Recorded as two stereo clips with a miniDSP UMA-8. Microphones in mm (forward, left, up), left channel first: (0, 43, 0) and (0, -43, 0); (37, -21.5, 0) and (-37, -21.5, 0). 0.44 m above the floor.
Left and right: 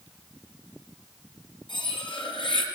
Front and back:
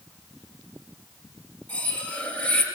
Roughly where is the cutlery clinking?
Left.